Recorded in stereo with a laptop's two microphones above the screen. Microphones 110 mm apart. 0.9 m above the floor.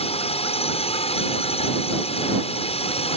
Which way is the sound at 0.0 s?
65° left (ahead or behind).